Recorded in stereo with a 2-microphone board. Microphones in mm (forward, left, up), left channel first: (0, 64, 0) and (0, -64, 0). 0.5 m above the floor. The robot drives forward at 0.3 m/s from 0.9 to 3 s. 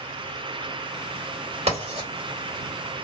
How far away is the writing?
About 2.0 m.